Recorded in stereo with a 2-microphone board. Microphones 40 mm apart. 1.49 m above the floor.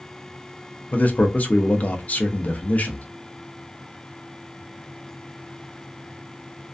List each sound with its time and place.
0.9 s a man speaking: 40° left (ahead or behind), 0.5 m